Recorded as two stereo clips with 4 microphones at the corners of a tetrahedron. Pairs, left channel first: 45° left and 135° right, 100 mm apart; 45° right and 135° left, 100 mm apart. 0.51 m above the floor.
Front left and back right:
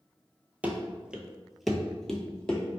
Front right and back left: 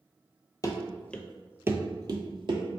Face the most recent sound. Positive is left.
turn(degrees=125)